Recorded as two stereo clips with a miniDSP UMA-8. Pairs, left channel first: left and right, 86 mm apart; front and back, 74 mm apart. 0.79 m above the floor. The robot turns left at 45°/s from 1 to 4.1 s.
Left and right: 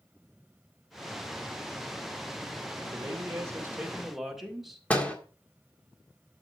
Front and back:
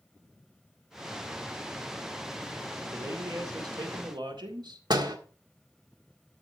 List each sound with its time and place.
2.9 s a man speaking: 125° right, 2.0 m; by 4.8 s straight behind, 2.0 m
4.9 s a door slam: 165° left, 1.6 m